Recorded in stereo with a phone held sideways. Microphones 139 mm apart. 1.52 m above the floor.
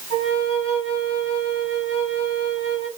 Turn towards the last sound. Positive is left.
turn(degrees=45)  # may be behind; listen again after turning